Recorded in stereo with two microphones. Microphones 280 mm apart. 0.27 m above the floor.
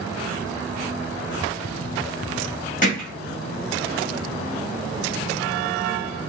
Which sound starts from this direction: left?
Hammering, at 2.8 s.